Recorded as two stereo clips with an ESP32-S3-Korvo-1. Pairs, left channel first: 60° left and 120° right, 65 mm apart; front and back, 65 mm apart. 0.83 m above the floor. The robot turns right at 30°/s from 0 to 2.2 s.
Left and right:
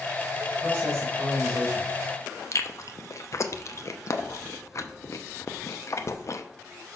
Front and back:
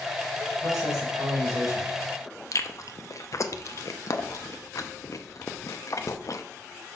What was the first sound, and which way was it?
A man speaking, 175° left.